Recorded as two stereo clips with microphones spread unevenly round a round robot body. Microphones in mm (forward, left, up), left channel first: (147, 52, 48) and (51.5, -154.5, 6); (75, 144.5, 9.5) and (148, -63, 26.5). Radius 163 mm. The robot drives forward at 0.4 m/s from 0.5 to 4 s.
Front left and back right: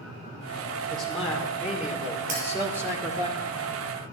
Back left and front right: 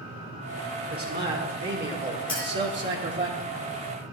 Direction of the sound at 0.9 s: 25° right.